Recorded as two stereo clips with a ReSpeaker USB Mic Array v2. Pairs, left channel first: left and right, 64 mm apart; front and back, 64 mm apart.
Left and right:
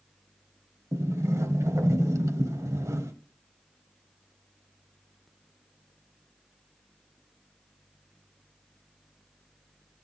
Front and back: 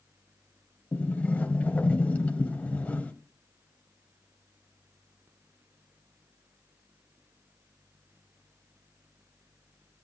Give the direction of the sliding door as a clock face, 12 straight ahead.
2 o'clock.